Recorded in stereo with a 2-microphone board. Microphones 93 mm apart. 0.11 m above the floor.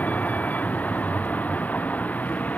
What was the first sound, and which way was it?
A vehicle, 15° left (ahead or behind).